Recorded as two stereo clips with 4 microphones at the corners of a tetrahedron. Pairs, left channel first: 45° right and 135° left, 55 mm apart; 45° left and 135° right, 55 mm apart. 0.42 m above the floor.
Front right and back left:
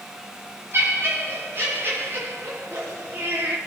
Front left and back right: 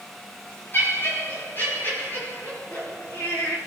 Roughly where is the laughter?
Left.